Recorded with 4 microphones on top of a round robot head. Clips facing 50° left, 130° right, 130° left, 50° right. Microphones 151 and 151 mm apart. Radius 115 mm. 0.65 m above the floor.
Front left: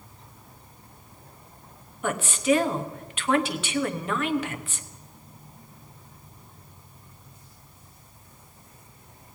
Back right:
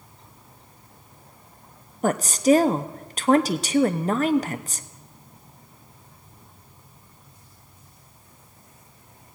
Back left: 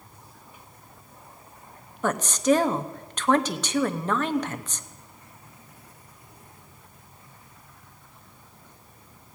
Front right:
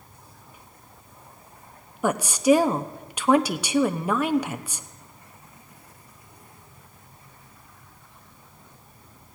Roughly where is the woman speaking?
Behind right.